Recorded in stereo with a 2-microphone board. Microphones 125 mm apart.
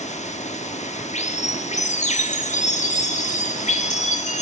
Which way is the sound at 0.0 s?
70° left (ahead or behind).